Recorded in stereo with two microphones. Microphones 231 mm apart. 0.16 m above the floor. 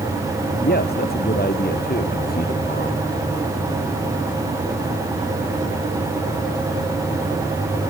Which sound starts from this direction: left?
A man speaking, at 0.6 s.